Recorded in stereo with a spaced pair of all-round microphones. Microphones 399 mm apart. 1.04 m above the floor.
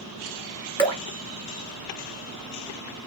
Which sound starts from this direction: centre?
Dripping, at 0.8 s.